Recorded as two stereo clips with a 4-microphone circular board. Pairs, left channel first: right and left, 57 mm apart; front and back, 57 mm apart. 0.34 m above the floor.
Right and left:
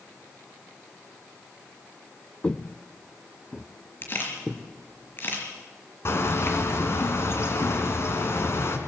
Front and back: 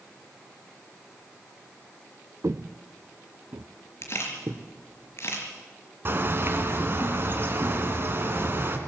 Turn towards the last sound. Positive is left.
turn(degrees=-130)